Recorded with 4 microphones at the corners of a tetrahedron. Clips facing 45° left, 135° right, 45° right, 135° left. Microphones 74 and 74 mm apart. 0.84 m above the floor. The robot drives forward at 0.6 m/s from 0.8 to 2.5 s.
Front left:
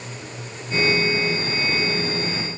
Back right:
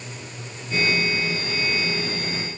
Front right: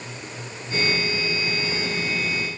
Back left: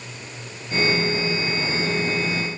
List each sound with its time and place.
Only background noise.